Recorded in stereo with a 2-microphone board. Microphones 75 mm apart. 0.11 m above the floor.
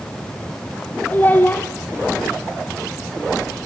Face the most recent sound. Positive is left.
turn(degrees=25)  # may be behind; listen again after turning